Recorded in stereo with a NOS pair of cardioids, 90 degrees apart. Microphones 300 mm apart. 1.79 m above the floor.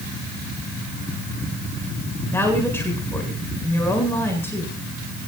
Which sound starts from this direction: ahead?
A woman speaking, at 2.3 s.